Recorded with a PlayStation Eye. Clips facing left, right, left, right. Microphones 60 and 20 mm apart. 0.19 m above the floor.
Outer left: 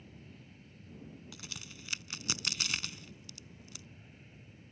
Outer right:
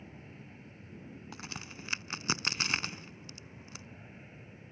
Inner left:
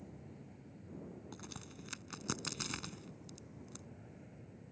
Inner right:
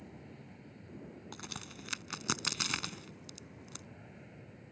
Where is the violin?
I don't hear a violin.